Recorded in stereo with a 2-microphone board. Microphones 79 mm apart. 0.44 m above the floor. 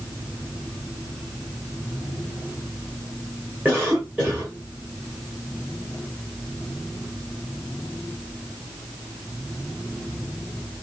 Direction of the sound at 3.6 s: 25° right (ahead or behind).